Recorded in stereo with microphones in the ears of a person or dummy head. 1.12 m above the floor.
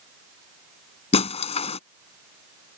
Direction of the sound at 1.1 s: 30° left (ahead or behind).